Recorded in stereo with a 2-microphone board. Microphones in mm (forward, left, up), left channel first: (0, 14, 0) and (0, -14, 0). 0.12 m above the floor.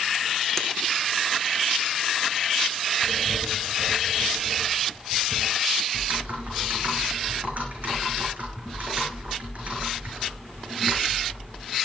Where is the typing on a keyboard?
55° right (ahead or behind), 6.5 m.